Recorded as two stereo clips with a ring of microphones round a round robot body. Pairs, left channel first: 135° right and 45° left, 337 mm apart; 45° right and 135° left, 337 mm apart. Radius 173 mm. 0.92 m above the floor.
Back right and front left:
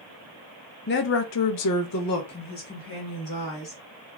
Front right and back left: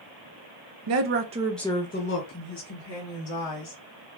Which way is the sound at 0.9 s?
170° left.